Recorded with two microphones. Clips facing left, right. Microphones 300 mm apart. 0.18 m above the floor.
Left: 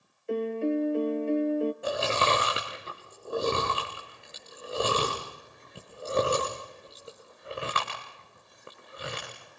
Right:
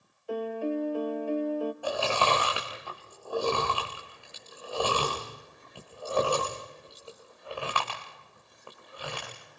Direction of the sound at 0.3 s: 25° left (ahead or behind).